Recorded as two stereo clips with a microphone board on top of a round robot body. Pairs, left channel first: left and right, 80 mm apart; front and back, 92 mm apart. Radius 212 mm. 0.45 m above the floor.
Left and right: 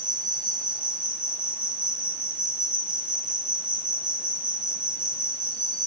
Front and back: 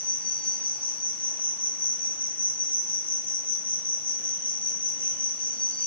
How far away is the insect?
About 7.5 m.